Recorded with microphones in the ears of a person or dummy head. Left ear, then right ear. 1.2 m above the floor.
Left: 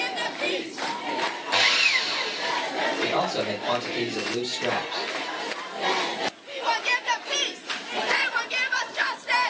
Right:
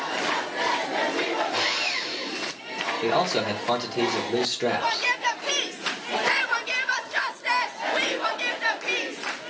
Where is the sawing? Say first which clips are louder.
Left 5 dB; 50° left (ahead or behind), 0.7 m.